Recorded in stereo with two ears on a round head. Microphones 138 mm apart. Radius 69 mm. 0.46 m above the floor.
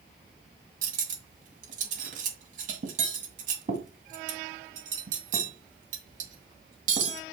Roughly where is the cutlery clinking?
Right.